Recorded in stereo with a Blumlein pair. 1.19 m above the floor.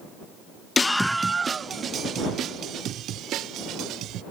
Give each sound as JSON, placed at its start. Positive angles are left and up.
{"t": 0.8, "sound": "a scream", "azimuth_deg": 15}